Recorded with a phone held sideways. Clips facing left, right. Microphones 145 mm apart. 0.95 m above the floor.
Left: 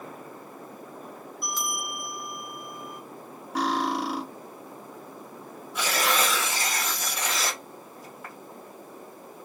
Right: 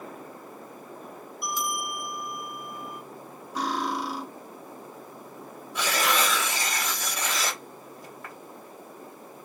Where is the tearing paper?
5° left (ahead or behind), 1.8 m.